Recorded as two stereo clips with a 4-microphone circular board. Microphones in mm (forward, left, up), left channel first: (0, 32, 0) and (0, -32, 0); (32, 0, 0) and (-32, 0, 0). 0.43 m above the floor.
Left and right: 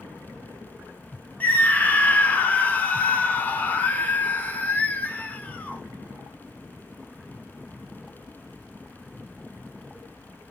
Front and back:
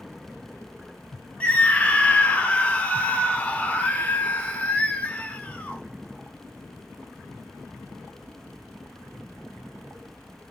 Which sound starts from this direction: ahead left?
A scream, at 1.4 s.